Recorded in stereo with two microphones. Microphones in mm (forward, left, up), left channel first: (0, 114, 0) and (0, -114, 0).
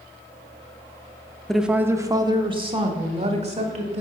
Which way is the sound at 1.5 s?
Centre (ahead or behind).